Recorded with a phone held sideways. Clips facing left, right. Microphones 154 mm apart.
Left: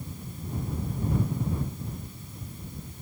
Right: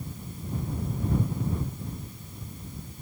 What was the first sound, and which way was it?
Only background noise.